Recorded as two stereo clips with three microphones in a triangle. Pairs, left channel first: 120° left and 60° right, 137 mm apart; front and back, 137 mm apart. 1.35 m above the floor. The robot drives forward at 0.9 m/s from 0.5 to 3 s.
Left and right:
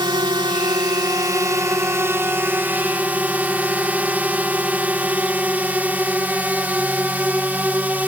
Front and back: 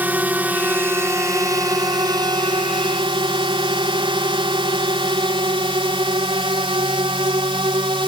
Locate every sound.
0.0 s a drone: 105° right; by 8.1 s 135° right